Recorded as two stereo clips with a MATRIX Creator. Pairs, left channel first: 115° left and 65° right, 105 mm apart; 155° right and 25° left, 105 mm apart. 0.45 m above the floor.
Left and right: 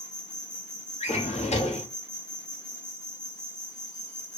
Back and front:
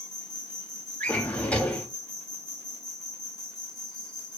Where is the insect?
170° right, 0.8 m.